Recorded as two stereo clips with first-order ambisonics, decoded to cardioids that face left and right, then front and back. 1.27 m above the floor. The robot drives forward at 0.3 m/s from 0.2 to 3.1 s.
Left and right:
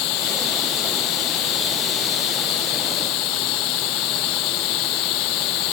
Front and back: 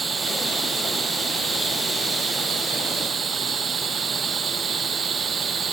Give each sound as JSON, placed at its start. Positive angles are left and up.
{"t": 0.0, "sound": "running water", "azimuth_deg": 110}